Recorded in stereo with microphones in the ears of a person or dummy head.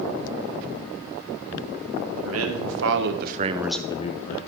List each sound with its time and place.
2.1 s a man speaking: 85° right, 2.0 m; by 4.4 s 45° left (ahead or behind), 1.1 m